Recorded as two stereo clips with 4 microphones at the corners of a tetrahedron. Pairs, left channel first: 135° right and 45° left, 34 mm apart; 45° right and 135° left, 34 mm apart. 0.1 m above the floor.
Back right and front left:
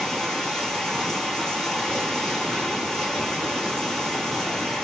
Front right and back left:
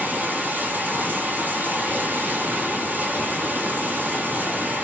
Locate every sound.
0.0 s running water: 150° left, 1.2 m